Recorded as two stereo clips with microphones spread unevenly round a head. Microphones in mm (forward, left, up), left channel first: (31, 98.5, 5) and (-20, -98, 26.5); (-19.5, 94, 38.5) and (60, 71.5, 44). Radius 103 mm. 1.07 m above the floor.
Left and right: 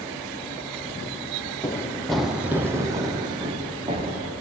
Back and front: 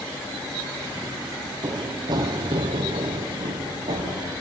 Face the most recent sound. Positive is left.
turn(degrees=-45)